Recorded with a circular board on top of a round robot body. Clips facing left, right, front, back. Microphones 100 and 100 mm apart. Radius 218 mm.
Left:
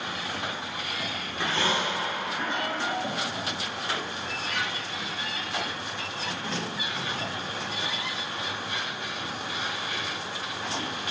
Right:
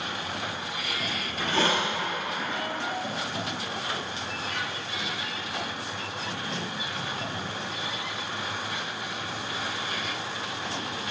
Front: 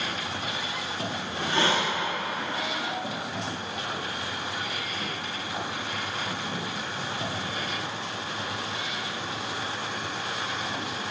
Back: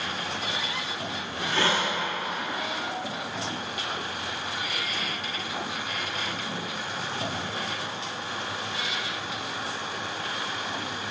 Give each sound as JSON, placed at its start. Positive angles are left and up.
{"t": 1.2, "sound": "a hiss", "azimuth_deg": -65, "distance_m": 2.0}